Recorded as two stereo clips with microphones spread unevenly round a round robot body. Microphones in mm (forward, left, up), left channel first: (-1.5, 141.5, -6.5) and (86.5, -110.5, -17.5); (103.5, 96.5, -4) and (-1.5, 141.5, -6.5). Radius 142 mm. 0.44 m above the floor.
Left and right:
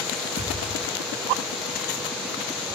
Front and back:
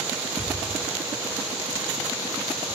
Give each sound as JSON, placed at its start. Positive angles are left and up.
{"t": 0.4, "sound": "a thud", "azimuth_deg": -135, "distance_m": 8.0}